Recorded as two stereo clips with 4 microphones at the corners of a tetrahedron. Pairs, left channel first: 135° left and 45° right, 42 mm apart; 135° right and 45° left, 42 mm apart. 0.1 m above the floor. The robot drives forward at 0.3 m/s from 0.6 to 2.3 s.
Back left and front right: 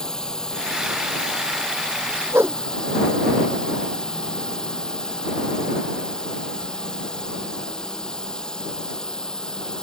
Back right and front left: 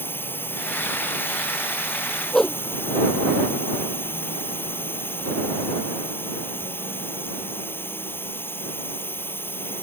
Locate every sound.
0.0 s a drone: 150° right
2.3 s a whoosh: 55° right